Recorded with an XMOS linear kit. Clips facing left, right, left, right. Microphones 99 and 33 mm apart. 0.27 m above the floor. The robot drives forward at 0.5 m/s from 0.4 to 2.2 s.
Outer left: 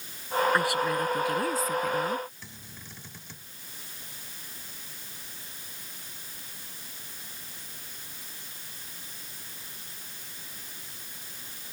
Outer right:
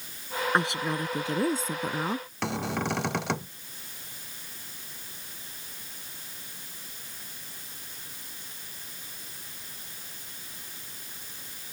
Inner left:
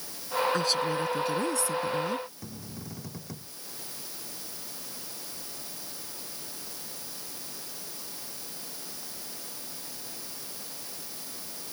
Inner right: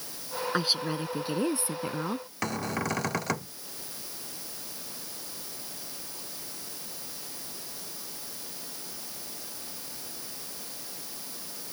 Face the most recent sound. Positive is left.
turn(degrees=-75)  # may be behind; listen again after turning